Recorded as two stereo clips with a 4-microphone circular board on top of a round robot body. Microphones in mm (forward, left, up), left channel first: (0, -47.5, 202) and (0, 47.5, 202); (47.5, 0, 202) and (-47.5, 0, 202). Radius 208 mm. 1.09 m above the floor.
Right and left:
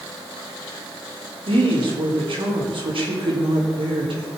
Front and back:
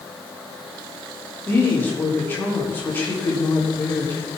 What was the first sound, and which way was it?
A woman speaking, 70° left.